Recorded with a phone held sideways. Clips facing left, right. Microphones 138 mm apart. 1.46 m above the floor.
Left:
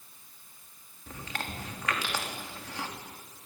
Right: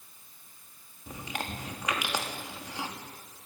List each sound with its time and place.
1.1 s chewing: 15° right (ahead or behind), 3.5 m